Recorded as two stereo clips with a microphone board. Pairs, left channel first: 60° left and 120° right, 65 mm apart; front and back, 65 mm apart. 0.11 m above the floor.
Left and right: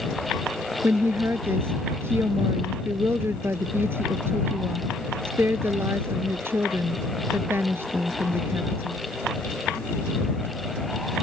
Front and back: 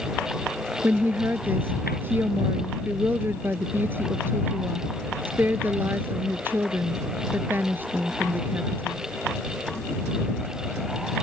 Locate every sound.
0.8 s a woman speaking: 145° right